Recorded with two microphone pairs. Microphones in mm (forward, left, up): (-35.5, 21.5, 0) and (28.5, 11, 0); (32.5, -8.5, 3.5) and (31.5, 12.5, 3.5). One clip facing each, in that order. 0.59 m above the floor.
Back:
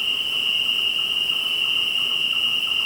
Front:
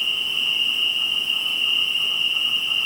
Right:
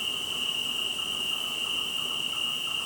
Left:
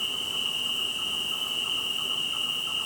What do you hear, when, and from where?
0.0 s an insect: 165° right, 2.5 m